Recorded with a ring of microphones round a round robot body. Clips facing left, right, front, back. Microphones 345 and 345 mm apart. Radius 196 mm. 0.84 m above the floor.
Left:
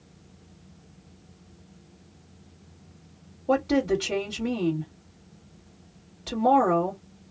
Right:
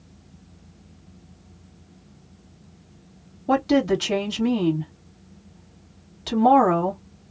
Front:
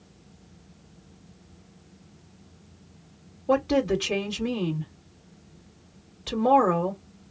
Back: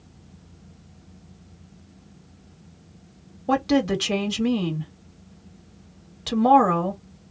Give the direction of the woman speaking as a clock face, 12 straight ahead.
5 o'clock.